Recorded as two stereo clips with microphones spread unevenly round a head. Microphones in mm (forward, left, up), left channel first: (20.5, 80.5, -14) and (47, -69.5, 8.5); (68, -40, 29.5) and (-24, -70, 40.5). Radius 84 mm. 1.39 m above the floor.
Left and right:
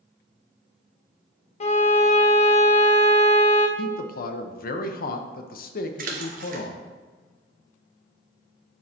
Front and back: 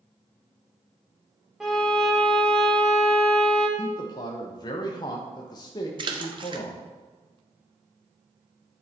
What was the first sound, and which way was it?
A violin, 120° left.